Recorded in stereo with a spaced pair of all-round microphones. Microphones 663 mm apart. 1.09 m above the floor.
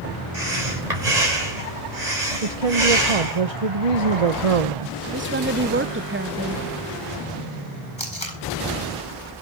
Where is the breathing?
85° right, 4.5 m.